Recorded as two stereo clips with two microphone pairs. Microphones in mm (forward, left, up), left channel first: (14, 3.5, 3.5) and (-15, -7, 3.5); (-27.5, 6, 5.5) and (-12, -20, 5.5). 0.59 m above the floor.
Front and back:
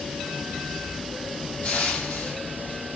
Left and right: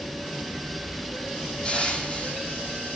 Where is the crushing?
60° left, 5 m.